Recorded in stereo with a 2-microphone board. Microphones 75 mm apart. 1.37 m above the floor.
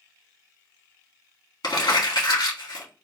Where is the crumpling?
75° left (ahead or behind), 2 m.